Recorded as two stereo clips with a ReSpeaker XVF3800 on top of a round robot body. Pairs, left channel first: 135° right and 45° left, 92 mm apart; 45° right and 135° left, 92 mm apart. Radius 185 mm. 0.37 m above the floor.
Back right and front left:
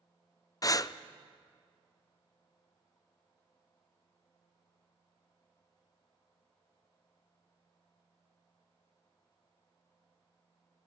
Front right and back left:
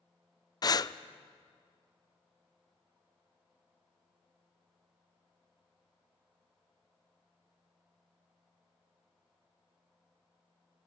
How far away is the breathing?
About 0.6 m.